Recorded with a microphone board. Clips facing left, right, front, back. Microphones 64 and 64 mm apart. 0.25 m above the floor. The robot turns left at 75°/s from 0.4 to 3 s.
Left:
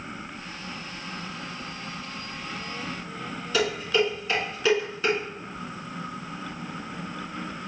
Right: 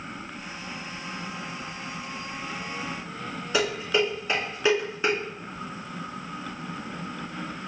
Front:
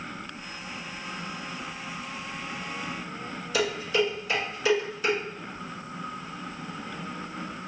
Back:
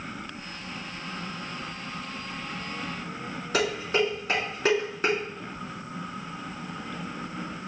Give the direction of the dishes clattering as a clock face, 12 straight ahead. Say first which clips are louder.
Left 1 dB, even; 5 o'clock.